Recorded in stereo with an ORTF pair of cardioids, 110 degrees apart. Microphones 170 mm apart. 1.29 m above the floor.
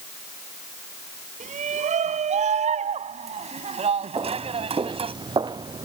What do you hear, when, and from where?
1.4 s a shout: 45° right; by 5.2 s 35° right
4.2 s footsteps: 25° right